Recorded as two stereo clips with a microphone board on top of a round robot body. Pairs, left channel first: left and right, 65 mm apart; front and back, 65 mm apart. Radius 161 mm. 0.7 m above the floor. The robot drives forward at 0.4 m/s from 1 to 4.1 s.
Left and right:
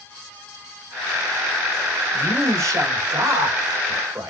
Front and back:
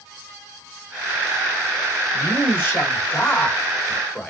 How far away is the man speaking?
About 2.5 m.